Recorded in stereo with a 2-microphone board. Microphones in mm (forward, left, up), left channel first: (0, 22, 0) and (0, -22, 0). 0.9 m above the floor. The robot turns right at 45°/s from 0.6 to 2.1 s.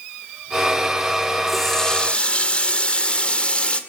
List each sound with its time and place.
1.5 s a running tap: centre (ahead or behind), 2 m; by 3.8 s 25° left (ahead or behind), 2 m